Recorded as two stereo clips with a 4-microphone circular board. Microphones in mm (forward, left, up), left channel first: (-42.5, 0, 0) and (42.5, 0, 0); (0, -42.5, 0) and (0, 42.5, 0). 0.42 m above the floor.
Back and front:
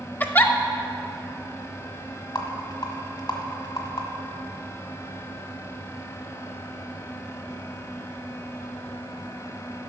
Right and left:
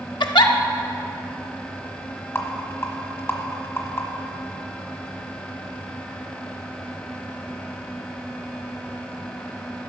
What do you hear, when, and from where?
0.2 s a giggle: 115° right, 0.6 m
2.4 s a rattle: 150° right, 1.3 m